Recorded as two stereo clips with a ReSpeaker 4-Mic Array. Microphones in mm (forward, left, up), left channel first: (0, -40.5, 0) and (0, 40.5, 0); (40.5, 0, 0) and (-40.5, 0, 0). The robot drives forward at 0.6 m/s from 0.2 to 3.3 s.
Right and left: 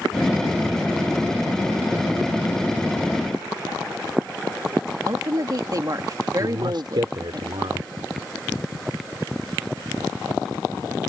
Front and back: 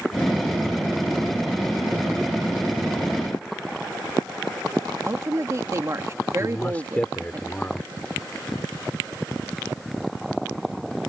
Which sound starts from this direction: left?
A man speaking, at 6.4 s.